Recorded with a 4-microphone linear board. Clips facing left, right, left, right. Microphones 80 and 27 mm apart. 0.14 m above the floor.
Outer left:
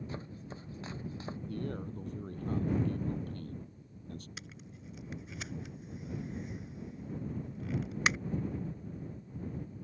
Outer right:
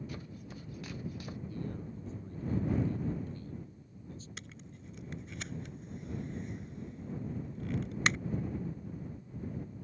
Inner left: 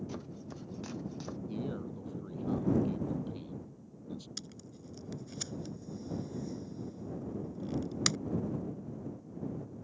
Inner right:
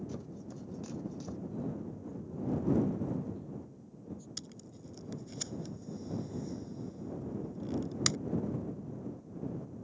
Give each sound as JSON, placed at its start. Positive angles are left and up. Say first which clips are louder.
{"t": 0.1, "sound": "chopping", "louder": "outer left 2 dB, even", "side_deg": 30}
{"t": 1.5, "sound": "a man speaking", "louder": "outer left 4 dB, inner left 2 dB", "side_deg": 65}
{"t": 4.4, "sound": "tape being pulled", "louder": "even, even", "side_deg": 5}